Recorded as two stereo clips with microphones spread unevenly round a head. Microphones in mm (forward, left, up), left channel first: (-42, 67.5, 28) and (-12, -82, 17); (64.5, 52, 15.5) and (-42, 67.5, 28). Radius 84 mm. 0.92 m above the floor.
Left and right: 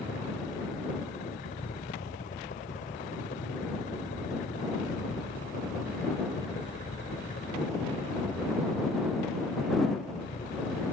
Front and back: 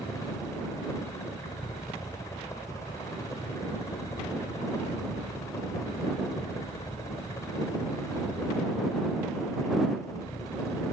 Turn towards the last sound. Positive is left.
turn(degrees=55)